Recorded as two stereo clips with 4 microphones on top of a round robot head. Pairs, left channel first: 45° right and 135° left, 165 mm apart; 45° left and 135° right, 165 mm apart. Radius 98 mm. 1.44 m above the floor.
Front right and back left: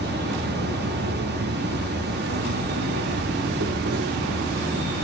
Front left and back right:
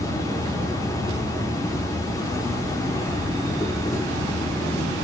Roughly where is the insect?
Behind left.